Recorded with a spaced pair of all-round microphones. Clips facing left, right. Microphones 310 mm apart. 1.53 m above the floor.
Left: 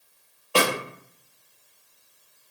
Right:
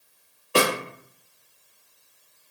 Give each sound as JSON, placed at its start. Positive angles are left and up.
{"t": 0.6, "sound": "a snare drum", "side_deg": -25, "distance_m": 1.0}